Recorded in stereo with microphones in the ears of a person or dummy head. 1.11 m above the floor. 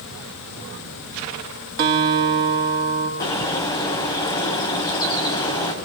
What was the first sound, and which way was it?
A guitar, 55° right (ahead or behind).